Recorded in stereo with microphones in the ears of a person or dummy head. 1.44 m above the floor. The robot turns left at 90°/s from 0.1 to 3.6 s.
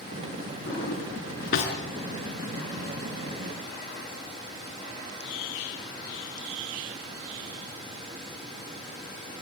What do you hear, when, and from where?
0.7 s a drawer: 45° left (ahead or behind), 5 m; by 1.7 s 40° left (ahead or behind), 5 m